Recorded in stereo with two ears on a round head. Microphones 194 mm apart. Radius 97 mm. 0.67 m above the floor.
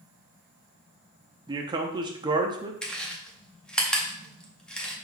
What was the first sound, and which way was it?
A man speaking, 20° right (ahead or behind).